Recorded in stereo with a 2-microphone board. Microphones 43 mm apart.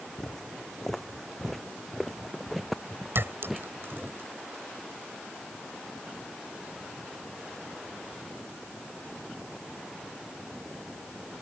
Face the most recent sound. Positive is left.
turn(degrees=-60)  # may be behind; listen again after turning